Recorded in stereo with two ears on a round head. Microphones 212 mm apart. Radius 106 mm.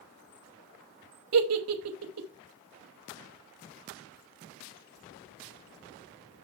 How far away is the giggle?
About 1.1 m.